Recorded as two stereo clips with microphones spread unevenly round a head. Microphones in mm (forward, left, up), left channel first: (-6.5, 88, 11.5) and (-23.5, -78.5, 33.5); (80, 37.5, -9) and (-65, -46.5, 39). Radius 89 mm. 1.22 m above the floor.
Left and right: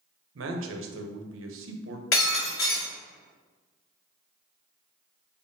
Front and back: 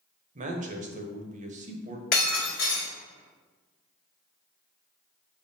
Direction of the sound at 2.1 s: 70° left.